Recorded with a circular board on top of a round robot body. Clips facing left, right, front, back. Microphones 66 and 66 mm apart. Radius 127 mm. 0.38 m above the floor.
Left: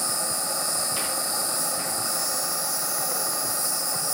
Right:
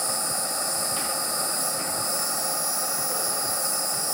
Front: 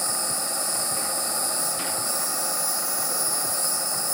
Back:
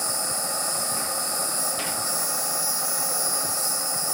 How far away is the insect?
About 4.5 m.